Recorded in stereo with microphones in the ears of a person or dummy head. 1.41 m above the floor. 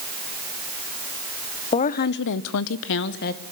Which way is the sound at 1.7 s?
30° left (ahead or behind).